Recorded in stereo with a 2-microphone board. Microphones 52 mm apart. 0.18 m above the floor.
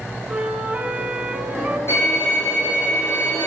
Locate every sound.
0.3 s a flute: 25° right (ahead or behind), 0.8 m
1.9 s a violin: 55° left (ahead or behind), 4 m